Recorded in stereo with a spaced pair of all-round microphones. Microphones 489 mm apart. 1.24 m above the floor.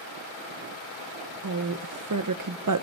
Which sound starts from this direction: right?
A woman speaking, at 1.4 s.